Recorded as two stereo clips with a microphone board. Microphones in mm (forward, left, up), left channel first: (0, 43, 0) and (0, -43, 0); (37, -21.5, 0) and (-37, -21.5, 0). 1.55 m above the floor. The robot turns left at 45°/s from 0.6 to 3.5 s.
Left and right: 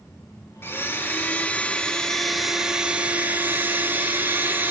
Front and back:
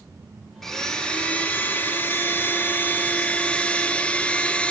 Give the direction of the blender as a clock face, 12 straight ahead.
9 o'clock.